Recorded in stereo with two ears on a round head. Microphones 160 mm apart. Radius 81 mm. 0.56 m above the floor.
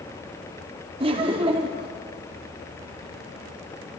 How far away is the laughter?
About 0.9 m.